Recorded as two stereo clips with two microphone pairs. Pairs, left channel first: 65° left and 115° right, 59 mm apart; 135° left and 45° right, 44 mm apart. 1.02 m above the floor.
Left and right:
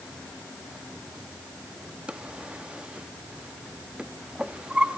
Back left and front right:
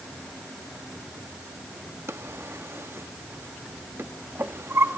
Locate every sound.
2.1 s a drawer: 45° right, 0.7 m